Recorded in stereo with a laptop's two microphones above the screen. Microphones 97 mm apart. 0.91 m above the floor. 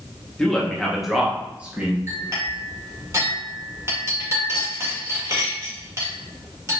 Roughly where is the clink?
Right.